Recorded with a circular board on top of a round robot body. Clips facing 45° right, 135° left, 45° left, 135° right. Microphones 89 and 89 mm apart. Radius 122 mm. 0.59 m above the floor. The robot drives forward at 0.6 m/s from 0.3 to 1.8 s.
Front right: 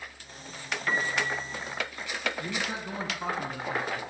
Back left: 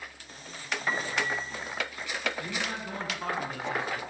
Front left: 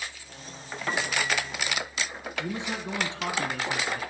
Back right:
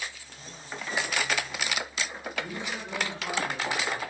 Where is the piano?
65° left, 5 m; by 1.8 s 70° left, 4.5 m.